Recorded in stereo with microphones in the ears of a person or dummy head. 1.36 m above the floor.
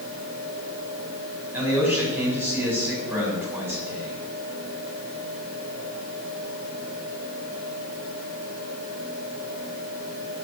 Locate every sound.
1.5 s a man speaking: 15° right (ahead or behind), 6.5 m